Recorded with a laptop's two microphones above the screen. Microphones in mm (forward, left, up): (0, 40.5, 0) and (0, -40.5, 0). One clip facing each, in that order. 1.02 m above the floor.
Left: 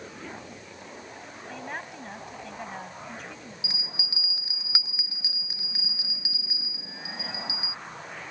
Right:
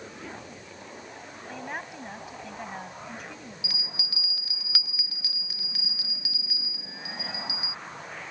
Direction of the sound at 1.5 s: 5° right (ahead or behind).